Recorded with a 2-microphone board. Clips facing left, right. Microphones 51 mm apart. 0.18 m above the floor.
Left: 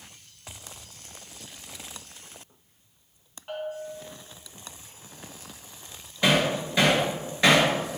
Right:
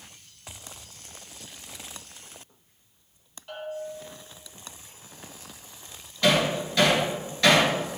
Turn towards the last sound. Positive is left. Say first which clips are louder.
# even
turn(degrees=20)  # may be behind; listen again after turning